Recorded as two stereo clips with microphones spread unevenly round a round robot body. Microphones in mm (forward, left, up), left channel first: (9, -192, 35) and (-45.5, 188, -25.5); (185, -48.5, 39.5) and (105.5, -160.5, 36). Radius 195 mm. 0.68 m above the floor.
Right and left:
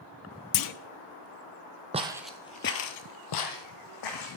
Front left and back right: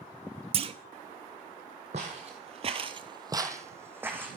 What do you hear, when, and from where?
0.5 s a clunk: 110° right, 0.6 m
1.9 s footsteps: 175° left, 1.2 m; by 4.4 s 50° right, 2.5 m